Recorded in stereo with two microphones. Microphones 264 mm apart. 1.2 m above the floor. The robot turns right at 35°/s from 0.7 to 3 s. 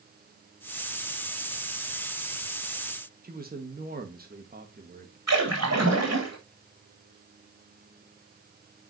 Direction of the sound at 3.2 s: 35° right (ahead or behind).